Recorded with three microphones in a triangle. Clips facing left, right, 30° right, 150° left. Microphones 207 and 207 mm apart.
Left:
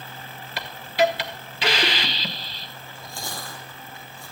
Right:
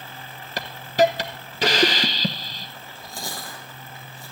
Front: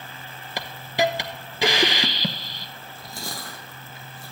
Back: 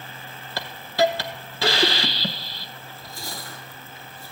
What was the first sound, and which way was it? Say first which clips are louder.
A hiss: right 2 dB, back 3 dB; 95° right.